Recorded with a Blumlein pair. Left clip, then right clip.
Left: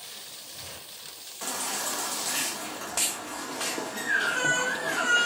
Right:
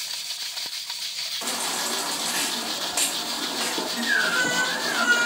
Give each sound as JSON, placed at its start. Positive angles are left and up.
{"t": 1.4, "sound": "a baby crying", "azimuth_deg": -10, "distance_m": 1.8}